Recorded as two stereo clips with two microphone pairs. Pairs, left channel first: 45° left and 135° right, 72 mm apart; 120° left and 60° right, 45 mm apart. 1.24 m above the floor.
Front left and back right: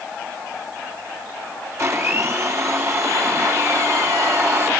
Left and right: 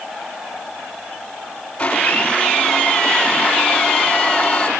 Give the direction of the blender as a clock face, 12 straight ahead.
6 o'clock.